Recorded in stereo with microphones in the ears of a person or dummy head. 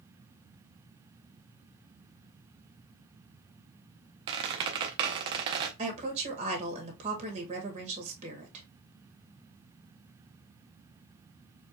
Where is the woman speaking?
35° right (ahead or behind), 2 m.